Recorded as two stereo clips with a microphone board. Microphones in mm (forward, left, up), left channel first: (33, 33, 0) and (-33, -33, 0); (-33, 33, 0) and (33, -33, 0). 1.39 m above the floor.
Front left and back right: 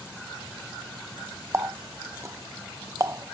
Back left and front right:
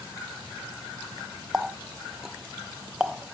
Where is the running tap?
120° right, 0.5 m.